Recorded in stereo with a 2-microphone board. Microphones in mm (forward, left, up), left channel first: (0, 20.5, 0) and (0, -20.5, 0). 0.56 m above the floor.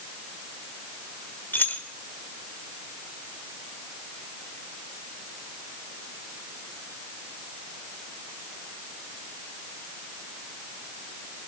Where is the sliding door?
I don't hear a sliding door.